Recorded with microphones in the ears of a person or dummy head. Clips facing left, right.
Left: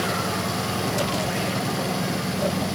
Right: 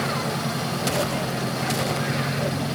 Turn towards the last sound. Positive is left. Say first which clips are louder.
# even
turn(degrees=60)  # may be behind; listen again after turning